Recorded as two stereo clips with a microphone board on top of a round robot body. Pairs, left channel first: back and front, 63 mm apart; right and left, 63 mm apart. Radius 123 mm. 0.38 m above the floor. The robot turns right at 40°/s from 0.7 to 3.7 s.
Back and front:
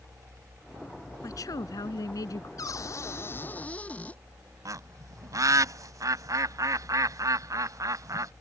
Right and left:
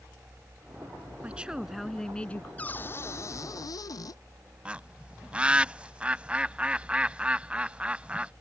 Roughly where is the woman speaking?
Behind left.